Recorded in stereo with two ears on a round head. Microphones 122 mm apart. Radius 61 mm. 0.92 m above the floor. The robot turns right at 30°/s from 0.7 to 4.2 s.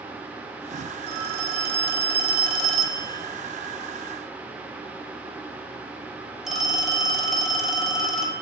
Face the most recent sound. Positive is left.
turn(degrees=-5)